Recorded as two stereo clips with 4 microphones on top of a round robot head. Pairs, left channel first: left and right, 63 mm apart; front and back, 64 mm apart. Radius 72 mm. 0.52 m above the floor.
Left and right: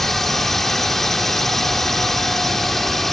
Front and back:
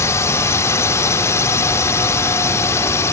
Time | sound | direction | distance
0.0 | a drone | 5° left | ?